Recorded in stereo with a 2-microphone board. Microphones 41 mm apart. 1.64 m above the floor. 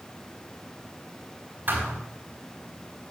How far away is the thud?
About 5 m.